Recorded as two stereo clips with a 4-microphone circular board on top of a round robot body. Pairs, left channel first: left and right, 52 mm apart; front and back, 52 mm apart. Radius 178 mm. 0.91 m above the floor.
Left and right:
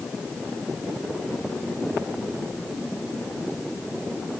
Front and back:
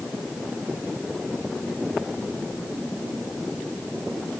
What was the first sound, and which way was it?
Only background noise.